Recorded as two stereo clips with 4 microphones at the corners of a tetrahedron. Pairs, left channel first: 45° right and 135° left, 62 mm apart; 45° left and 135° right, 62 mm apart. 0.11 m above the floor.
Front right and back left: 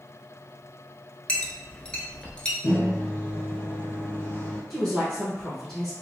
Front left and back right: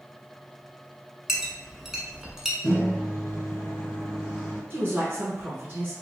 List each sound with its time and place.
1.3 s a clink: 65° right, 0.7 m
2.6 s a microwave: 20° right, 1.5 m
4.7 s a woman speaking: 125° right, 1.5 m